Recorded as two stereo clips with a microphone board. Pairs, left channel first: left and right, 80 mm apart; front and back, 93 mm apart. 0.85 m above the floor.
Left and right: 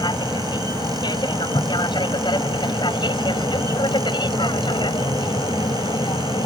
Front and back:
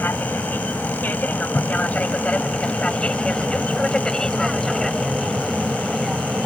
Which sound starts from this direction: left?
An aircraft, at 0.0 s.